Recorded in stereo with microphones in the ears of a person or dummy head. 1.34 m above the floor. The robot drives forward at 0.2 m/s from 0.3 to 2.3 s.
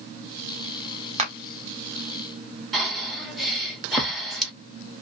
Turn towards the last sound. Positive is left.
turn(degrees=0)  # may be behind; listen again after turning